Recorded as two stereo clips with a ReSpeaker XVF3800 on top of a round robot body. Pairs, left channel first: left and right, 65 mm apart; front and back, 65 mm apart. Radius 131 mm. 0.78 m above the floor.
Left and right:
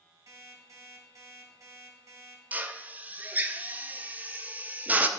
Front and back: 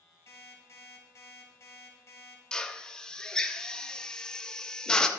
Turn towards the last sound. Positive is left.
turn(degrees=-65)